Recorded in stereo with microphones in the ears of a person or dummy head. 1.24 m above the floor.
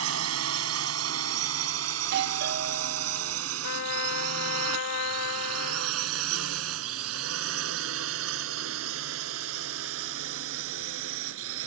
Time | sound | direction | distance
0.0 | a drone | 80° right | ?
2.0 | a doorbell | 60° right (ahead or behind) | ?
3.6 | a trumpet | 80° left | ?